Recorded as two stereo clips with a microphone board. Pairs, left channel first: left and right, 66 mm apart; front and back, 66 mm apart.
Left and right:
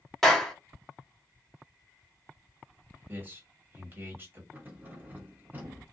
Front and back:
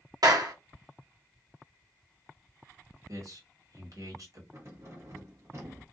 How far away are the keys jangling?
About 0.8 m.